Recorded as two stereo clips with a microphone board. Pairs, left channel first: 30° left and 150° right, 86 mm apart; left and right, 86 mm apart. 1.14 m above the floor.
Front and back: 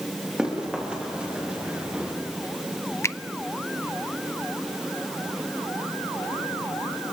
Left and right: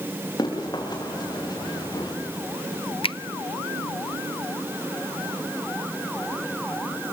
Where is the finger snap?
90° left, 0.6 m.